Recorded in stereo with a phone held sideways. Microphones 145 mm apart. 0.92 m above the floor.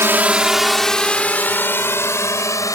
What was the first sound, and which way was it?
A drone, 15° right (ahead or behind).